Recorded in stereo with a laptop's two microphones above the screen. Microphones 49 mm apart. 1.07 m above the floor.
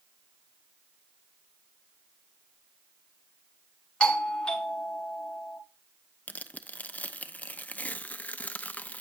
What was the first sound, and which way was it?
A doorbell, 20° left (ahead or behind).